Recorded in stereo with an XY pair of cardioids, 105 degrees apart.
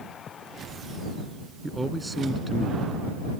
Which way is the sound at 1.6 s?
15° right.